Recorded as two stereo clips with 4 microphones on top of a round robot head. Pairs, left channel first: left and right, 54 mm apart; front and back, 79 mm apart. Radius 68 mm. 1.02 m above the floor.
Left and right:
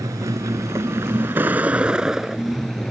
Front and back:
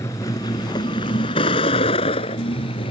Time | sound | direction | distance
0.0 | a vehicle | 60° right | ?